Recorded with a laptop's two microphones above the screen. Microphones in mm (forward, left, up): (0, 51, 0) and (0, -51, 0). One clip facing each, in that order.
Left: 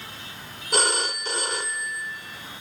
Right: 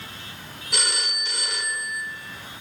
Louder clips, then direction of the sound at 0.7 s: Left 7 dB; 40° left (ahead or behind).